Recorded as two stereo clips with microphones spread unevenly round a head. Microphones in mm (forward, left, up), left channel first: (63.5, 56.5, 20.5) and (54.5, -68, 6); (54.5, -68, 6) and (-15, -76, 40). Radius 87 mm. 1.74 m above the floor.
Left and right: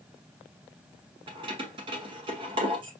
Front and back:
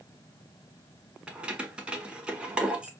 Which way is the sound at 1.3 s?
145° right.